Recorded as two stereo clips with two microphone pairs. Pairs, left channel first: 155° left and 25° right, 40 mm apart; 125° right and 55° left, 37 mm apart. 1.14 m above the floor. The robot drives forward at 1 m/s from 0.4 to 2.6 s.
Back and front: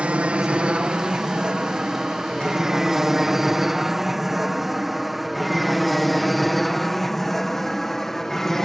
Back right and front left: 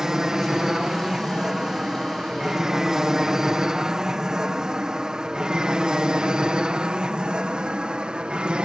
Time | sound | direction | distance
0.0 | an aircraft | 15° right | ?